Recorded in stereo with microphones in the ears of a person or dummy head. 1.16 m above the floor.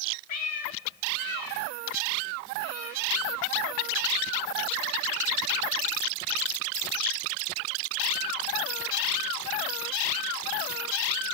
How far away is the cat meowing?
About 1.2 m.